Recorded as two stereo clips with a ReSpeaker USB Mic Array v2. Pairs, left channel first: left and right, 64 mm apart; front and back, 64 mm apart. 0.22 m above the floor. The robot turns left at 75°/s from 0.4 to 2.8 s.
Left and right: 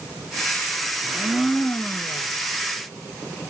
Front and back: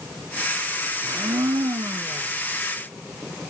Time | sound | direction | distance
1.0 | a blender | 145° right | 0.6 m